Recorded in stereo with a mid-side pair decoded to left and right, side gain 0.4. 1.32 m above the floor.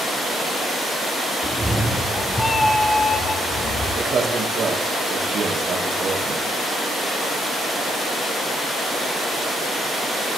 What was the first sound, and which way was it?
A cat meowing, 10° right.